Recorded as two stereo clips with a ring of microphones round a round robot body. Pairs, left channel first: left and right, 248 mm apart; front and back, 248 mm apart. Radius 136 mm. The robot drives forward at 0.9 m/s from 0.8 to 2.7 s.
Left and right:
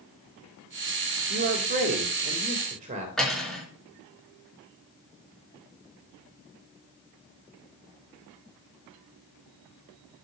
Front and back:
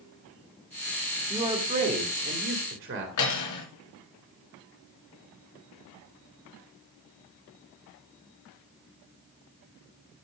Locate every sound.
1.3 s a man speaking: 105° right, 1.4 m; by 3.1 s 150° right, 2 m
3.2 s cutlery clinking: straight ahead, 4 m